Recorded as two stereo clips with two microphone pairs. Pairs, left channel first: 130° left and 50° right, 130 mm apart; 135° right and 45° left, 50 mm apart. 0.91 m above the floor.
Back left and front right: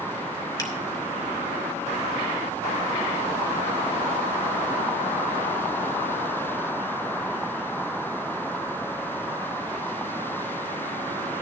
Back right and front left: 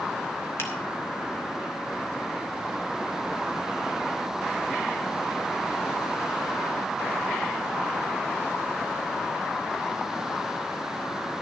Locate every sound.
0.6 s a finger snap: 170° right, 3 m